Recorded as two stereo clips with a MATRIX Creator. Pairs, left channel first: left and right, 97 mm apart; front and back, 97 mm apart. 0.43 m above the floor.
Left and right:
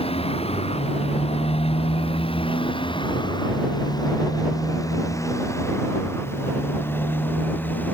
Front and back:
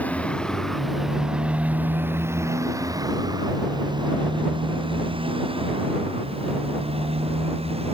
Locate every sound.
0.0 s a motorcycle: 75° left; by 8.0 s 165° left